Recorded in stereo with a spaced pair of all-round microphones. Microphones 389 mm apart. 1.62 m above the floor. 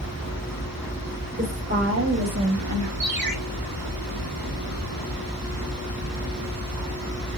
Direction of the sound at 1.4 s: 30° right (ahead or behind).